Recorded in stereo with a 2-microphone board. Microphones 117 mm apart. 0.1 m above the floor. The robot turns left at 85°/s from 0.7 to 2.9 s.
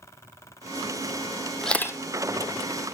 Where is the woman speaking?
I don't hear a woman speaking.